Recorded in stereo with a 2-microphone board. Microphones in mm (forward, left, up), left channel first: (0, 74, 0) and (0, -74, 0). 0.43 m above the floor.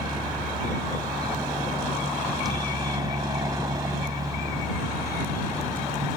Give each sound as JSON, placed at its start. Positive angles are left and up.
{"t": 0.0, "sound": "a helicopter", "side_deg": -30}